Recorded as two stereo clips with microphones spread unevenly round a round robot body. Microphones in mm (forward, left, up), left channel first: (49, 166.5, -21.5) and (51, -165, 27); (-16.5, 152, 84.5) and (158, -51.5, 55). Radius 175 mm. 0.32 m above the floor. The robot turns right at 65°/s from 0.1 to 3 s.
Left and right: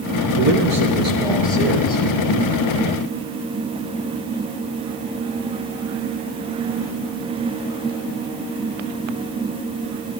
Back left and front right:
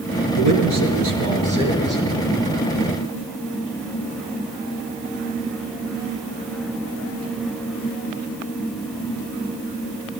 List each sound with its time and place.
0.4 s a man speaking: 60° right, 5 m; by 2.0 s 50° left, 5 m